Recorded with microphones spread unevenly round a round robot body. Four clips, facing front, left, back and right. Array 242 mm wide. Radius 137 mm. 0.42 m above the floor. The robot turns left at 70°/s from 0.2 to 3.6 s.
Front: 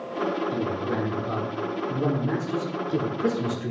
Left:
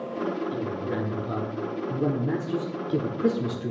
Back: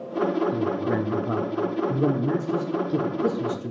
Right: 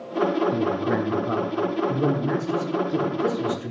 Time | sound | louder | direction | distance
0.5 | a man speaking | right 6 dB, back 2 dB | 80° right | 1.1 m